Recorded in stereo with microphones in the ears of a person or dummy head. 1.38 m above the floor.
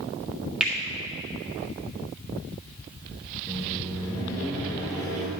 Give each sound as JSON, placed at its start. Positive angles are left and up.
{"t": 0.6, "sound": "a finger snap", "side_deg": -5, "distance_m": 1.7}
{"t": 3.5, "sound": "a microwave", "side_deg": 25, "distance_m": 2.0}